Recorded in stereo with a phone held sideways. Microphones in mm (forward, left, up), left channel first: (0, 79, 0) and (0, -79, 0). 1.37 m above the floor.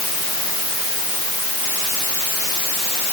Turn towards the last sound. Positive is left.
No sound to turn to.